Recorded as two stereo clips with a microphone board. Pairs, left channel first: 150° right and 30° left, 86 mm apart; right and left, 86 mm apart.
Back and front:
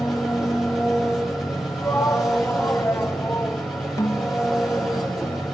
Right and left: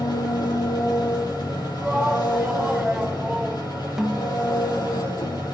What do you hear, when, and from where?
0.0 s an engine running: 55° right, 7.5 m
1.8 s a shout: 165° left, 1.9 m
4.0 s a snare drum: 175° left, 0.8 m